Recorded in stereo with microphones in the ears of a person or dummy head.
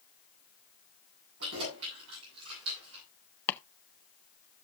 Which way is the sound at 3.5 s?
15° left (ahead or behind).